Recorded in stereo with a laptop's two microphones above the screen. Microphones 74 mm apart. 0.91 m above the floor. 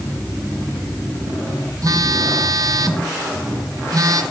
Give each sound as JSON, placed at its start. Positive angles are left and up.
{"t": 1.8, "sound": "a phone buzzing", "side_deg": -55, "distance_m": 0.6}